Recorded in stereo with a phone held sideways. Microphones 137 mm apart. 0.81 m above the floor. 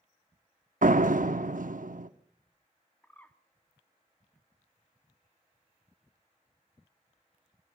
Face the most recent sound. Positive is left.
turn(degrees=10)  # may be behind; listen again after turning